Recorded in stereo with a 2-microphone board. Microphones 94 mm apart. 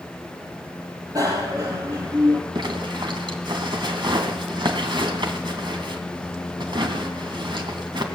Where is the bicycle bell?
40° right (ahead or behind), 4.5 m.